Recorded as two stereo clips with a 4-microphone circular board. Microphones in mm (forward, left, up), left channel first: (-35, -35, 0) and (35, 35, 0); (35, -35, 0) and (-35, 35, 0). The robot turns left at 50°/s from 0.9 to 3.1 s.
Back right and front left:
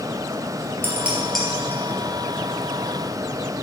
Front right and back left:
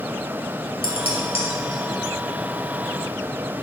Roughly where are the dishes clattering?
Ahead right.